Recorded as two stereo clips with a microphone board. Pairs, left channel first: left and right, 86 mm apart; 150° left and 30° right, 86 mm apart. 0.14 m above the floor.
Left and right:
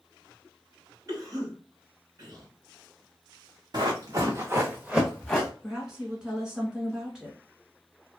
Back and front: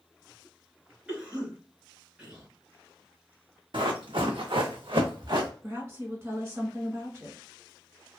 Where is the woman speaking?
15° right, 1.2 m.